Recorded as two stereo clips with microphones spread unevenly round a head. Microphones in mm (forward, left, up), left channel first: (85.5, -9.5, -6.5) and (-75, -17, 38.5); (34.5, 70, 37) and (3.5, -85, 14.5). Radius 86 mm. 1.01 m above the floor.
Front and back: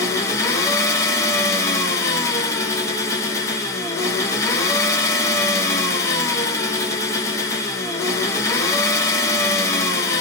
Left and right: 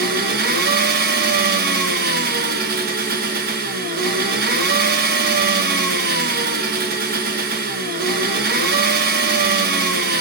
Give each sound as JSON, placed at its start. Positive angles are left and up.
{"t": 0.0, "sound": "an engine running", "azimuth_deg": -70, "distance_m": 0.7}